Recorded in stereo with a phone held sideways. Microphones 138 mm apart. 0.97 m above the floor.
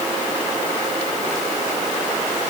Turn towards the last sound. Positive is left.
No sound to turn to.